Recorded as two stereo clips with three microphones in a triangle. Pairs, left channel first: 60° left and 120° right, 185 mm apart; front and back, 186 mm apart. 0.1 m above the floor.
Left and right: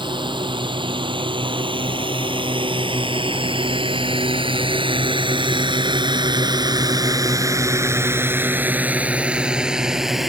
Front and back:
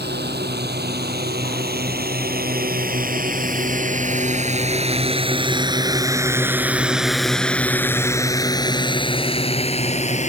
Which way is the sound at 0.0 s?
Straight behind.